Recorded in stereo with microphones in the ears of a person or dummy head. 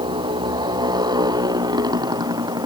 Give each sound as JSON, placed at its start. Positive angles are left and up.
{"t": 0.0, "sound": "a motorcycle", "side_deg": -25}